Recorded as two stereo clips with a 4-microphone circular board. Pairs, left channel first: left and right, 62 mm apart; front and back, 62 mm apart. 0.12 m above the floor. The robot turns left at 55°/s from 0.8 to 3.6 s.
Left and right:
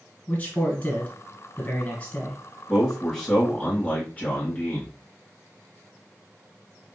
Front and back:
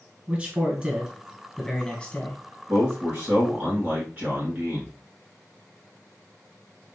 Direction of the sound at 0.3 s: 125° left.